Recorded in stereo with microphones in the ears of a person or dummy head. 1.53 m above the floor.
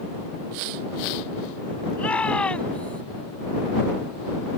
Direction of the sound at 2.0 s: 10° left (ahead or behind).